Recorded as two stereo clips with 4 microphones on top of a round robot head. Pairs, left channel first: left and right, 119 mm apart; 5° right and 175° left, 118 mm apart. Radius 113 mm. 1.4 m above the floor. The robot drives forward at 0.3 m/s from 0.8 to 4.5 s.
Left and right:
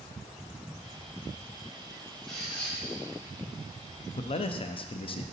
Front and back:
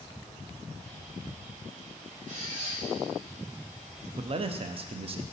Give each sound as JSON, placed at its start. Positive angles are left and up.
{"t": 2.3, "sound": "a squeak", "azimuth_deg": 175, "distance_m": 1.8}
{"t": 4.2, "sound": "a man speaking", "azimuth_deg": 125, "distance_m": 0.5}